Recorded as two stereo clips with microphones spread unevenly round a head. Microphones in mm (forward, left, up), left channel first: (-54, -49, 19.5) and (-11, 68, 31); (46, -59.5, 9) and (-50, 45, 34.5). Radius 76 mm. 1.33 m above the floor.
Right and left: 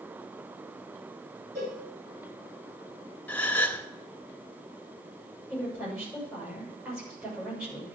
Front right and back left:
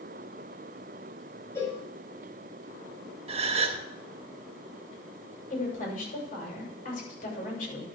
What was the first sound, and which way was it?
A cowbell, 25° left.